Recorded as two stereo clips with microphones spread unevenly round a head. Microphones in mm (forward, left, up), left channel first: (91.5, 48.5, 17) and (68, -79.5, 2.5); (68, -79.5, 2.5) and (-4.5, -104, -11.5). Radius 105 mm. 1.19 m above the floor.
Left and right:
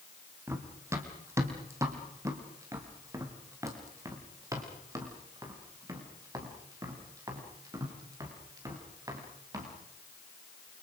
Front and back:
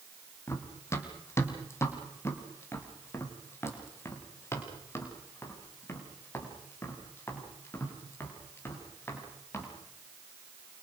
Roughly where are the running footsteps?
Ahead right.